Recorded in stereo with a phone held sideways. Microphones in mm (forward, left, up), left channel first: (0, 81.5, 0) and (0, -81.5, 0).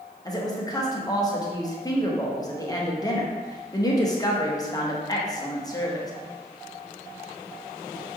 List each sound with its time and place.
0.2 s a woman speaking: 25° left (ahead or behind), 0.8 m